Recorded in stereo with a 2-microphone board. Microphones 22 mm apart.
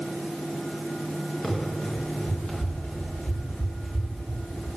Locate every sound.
1.4 s running footsteps: 35° left (ahead or behind), 5 m; by 4.7 s 70° left (ahead or behind), 8 m